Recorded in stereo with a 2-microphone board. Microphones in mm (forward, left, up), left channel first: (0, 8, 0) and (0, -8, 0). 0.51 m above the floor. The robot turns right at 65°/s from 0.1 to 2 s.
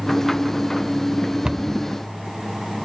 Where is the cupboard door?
50° right (ahead or behind), 0.5 m; by 1.8 s 30° right (ahead or behind), 0.5 m.